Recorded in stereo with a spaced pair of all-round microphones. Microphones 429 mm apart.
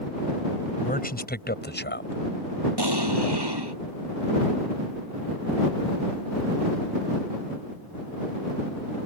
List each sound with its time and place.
0.8 s a man speaking: 20° left (ahead or behind); by 2.7 s 30° left (ahead or behind)
2.8 s an explosion: 65° right (ahead or behind)